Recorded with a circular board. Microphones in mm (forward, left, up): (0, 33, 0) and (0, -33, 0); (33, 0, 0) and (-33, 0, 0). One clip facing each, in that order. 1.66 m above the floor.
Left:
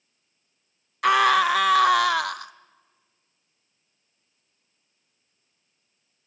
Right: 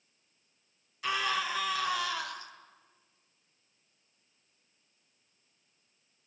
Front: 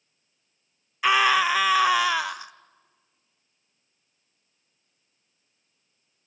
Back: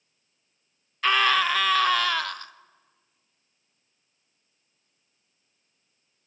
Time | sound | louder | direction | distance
1.0 | a scream | left 14 dB, front 2 dB | 80° left | 0.7 m